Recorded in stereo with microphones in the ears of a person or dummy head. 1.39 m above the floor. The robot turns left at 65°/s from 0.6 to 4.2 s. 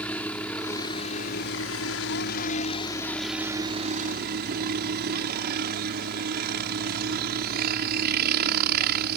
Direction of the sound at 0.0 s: 170° left.